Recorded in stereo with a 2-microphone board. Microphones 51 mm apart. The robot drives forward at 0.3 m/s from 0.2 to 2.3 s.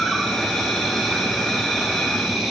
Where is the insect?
10° left (ahead or behind), 4 m; by 2.5 s 5° left (ahead or behind), 4.5 m.